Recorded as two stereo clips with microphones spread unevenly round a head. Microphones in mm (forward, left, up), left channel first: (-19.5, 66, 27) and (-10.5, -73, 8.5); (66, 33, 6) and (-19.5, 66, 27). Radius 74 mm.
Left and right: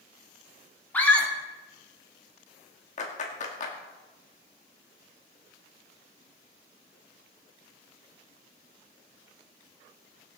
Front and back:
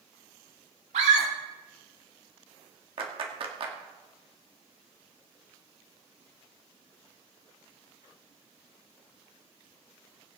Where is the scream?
175° left, 3 m.